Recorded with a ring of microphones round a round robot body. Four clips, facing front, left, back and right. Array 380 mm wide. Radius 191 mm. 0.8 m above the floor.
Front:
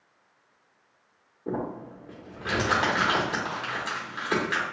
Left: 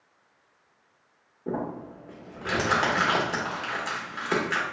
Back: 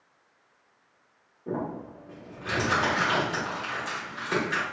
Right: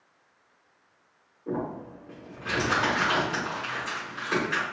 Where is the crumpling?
55° left, 1.0 m.